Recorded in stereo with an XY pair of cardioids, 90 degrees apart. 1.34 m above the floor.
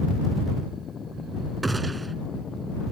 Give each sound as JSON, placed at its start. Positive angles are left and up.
{"t": 1.6, "sound": "a gunshot", "azimuth_deg": -25}